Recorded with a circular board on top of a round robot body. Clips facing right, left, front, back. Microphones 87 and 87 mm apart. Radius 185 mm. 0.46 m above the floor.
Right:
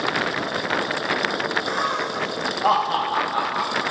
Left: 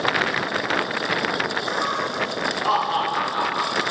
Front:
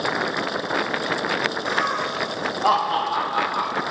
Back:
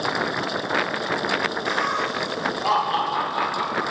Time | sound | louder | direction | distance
1.6 | laughter | even, even | 60° right | 4 m